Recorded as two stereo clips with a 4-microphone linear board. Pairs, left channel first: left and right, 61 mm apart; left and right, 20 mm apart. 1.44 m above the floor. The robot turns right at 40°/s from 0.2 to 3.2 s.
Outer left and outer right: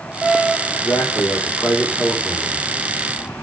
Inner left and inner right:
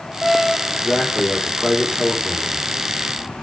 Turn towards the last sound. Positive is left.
turn(degrees=-145)